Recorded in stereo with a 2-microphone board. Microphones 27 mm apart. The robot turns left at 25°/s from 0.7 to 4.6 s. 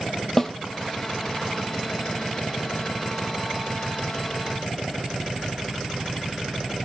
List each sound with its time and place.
0.4 s a snare drum: 15° left (ahead or behind), 0.7 m